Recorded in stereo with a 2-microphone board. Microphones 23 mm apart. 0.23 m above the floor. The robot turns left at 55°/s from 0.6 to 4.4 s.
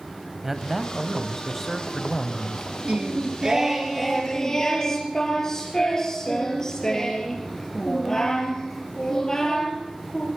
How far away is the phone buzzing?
I don't hear a phone buzzing.